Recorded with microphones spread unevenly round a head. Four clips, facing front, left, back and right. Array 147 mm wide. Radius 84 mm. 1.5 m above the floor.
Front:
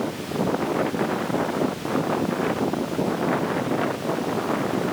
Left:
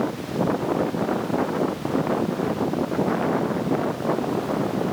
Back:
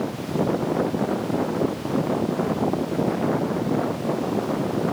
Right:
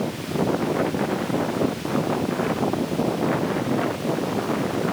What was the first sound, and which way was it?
Only background noise.